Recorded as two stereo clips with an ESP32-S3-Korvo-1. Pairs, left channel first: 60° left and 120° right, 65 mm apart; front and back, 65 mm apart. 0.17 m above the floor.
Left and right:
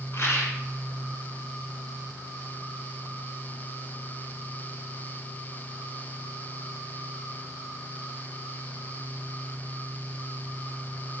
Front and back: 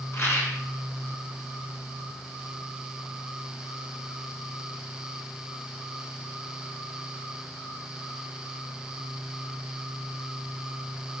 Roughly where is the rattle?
Ahead left.